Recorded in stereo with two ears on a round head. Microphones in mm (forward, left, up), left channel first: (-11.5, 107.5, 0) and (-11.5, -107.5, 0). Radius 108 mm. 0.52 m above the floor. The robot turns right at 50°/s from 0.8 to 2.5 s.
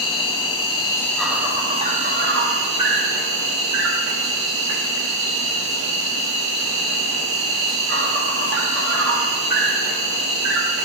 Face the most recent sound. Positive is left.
turn(degrees=-115)